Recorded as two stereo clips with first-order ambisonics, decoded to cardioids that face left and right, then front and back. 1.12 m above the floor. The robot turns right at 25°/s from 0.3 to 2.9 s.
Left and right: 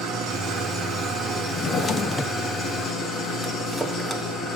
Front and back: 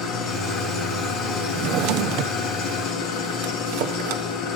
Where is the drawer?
145° left, 1.0 m; by 4.2 s straight behind, 1.0 m.